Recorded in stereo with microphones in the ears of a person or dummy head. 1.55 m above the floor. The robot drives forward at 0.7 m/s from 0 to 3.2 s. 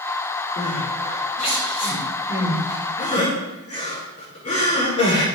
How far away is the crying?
About 7.5 m.